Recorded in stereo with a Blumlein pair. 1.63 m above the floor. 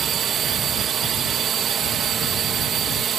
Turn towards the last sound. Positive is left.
turn(degrees=-25)